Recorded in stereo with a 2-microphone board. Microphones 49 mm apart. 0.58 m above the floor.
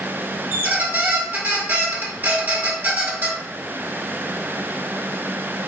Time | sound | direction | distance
0.5 | a squeak | 45° right (ahead or behind) | 0.8 m